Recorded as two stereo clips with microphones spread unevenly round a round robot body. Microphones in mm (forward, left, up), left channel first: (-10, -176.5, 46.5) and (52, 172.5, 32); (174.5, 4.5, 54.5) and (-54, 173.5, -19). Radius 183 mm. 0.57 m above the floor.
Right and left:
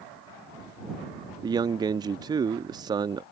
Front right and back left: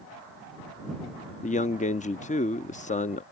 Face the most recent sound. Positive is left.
turn(degrees=30)